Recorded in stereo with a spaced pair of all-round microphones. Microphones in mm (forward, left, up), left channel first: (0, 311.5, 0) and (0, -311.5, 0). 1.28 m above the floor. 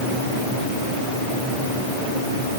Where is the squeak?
I don't hear a squeak.